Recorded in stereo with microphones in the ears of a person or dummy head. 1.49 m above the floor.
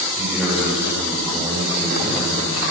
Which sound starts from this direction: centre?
A man speaking, at 0.2 s.